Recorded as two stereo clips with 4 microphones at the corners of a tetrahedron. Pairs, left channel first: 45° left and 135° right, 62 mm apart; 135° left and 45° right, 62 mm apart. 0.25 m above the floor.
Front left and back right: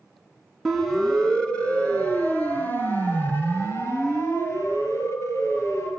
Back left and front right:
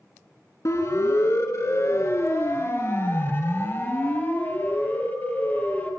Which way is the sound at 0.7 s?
130° left.